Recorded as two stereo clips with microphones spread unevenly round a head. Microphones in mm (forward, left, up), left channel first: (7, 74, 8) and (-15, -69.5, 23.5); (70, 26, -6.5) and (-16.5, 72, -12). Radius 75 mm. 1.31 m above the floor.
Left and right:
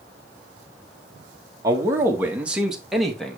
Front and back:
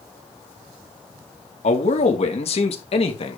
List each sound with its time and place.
1.6 s a man speaking: 30° right, 2 m; by 3.4 s 5° right, 2.5 m